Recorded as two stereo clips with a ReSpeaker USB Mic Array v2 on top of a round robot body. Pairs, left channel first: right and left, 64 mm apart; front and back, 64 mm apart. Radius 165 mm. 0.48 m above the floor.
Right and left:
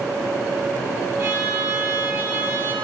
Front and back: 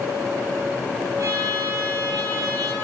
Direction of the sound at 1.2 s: 140° left.